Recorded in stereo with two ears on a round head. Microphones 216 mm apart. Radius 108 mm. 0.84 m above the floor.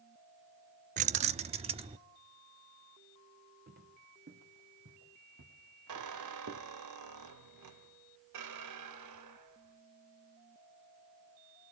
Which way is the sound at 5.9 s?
85° right.